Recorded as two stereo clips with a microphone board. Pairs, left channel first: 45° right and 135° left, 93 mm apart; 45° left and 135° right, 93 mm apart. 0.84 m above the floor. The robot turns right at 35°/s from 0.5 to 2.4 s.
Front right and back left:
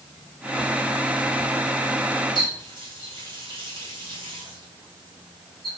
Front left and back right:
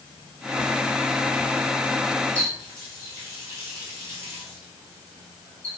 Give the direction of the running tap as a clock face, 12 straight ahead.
6 o'clock.